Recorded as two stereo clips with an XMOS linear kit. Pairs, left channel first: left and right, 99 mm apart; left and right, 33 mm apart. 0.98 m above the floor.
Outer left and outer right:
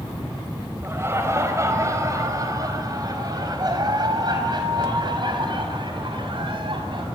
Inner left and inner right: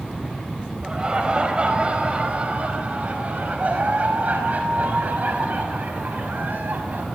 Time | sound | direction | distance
0.8 | laughter | 25° right (ahead or behind) | 4.5 m